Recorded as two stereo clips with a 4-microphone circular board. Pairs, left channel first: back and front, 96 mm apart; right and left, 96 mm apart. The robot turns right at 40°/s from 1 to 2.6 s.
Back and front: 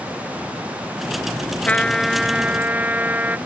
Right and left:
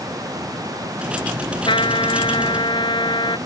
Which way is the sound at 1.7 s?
105° right.